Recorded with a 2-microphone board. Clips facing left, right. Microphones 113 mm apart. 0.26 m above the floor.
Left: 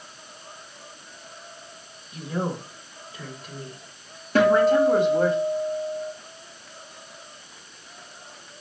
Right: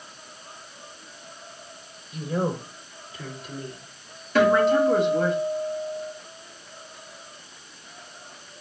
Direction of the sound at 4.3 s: 40° left (ahead or behind).